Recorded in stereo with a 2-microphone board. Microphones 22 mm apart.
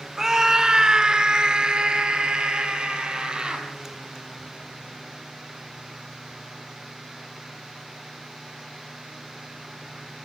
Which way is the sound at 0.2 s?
20° right (ahead or behind).